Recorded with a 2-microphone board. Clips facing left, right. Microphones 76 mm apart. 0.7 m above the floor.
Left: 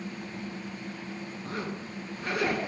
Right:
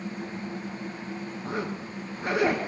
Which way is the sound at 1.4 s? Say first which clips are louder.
Right 4 dB; 25° right (ahead or behind).